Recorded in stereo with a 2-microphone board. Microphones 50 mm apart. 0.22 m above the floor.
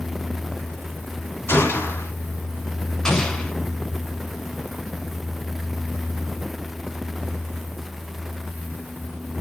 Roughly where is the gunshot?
Left.